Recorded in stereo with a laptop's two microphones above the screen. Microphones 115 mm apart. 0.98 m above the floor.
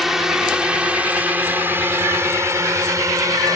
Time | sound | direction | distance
0.0 | a drone | 5° right (ahead or behind) | ?